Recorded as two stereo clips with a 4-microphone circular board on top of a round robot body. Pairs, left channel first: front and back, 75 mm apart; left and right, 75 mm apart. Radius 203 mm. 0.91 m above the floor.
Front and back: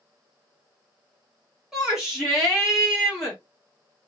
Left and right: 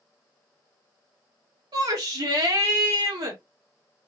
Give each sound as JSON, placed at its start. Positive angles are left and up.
{"t": 1.7, "sound": "a shout", "azimuth_deg": -95, "distance_m": 1.7}